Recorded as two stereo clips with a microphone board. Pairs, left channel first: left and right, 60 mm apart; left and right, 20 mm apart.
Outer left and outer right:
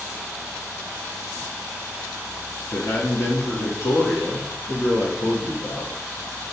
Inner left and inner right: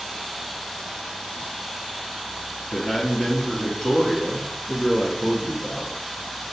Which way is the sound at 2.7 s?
45° left (ahead or behind).